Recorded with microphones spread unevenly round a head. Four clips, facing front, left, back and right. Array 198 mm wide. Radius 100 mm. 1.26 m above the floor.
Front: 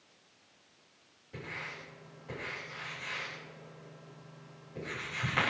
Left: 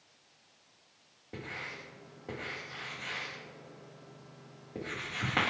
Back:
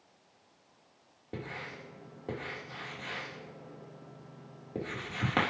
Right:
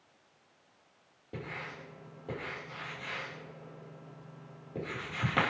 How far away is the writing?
About 4.5 m.